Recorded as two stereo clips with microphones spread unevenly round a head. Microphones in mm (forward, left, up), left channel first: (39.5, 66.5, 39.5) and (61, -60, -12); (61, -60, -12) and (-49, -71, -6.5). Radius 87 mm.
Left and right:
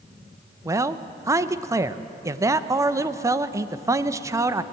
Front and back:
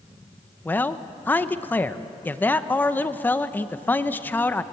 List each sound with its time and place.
0.7 s a man speaking: 60° right, 0.7 m